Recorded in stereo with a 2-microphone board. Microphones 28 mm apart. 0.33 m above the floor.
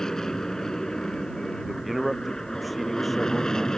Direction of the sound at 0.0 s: 20° left (ahead or behind).